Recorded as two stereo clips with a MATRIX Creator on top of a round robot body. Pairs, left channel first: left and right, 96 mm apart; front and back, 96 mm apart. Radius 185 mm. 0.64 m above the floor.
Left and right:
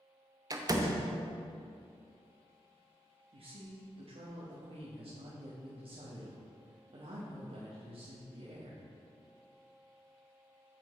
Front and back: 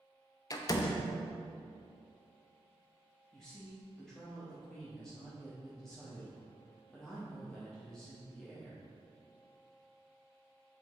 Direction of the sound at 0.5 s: 45° right.